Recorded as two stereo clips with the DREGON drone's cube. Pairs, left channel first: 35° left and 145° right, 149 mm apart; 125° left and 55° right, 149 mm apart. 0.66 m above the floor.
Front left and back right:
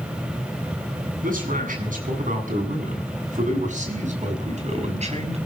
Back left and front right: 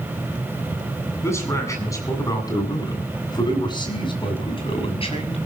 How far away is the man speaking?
About 7.5 m.